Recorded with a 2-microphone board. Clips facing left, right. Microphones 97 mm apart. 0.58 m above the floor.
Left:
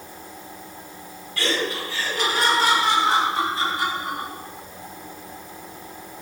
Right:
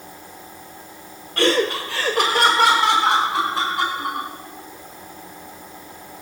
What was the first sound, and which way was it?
Laughter, 55° right (ahead or behind).